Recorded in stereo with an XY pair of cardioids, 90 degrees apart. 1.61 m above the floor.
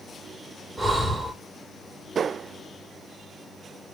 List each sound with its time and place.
0.8 s breathing: 10° right, 3.5 m